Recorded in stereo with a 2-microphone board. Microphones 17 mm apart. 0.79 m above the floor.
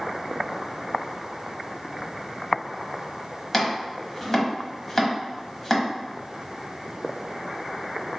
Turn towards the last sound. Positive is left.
turn(degrees=20)  # may be behind; listen again after turning